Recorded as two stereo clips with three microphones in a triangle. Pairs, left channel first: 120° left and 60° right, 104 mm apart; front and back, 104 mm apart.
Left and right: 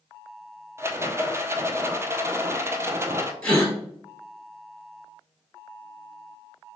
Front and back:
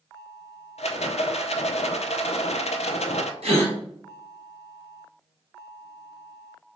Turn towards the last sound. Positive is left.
turn(degrees=-160)